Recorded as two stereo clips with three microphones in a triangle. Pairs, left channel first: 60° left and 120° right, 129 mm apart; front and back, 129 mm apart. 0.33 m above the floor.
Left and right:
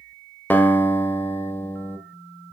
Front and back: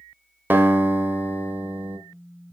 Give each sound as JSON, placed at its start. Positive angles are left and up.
{"t": 0.5, "sound": "a guitar", "azimuth_deg": 120, "distance_m": 1.0}